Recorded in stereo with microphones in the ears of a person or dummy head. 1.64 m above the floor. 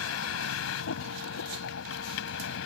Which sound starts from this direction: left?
A vehicle, at 0.0 s.